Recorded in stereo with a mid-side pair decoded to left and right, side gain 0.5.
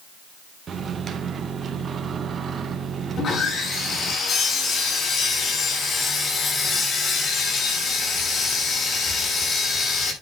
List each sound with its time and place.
0.7 s a microwave: 45° right, 1.8 m
3.2 s sawing: 45° left, 7.5 m